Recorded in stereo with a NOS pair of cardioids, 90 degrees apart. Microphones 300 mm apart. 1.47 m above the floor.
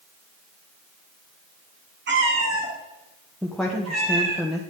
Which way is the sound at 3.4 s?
Straight ahead.